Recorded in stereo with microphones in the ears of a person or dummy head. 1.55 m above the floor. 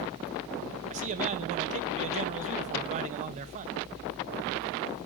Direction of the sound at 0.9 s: 35° right (ahead or behind).